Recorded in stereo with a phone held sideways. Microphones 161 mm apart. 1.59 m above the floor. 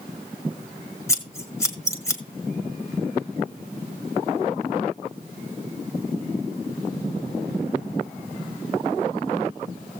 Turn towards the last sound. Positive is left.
turn(degrees=20)  # may be behind; listen again after turning